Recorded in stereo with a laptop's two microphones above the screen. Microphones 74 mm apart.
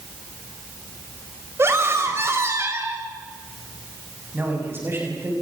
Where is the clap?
I don't hear a clap.